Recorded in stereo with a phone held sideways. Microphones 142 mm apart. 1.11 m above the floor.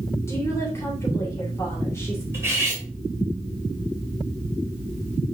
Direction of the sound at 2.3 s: 15° right (ahead or behind).